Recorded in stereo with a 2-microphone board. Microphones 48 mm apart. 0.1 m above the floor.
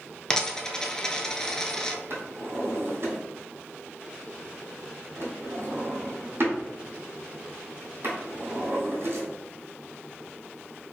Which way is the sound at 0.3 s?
15° left (ahead or behind).